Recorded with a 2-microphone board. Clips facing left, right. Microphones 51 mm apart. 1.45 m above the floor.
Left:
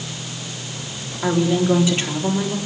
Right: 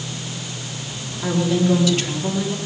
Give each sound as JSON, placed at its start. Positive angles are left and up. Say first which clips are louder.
{"t": 1.2, "sound": "a woman speaking", "louder": "left 1 dB", "side_deg": 25, "distance_m": 4.0}